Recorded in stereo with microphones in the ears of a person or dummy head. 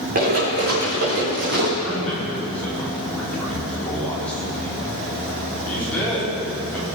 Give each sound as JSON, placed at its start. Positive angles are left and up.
{"t": 0.1, "sound": "running footsteps", "side_deg": -45, "distance_m": 5.5}
{"t": 1.8, "sound": "a man speaking", "side_deg": 5, "distance_m": 4.0}